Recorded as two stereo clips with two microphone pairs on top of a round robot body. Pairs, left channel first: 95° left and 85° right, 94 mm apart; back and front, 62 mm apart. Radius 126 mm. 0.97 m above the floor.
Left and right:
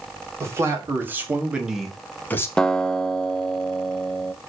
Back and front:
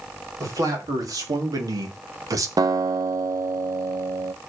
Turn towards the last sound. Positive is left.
turn(degrees=10)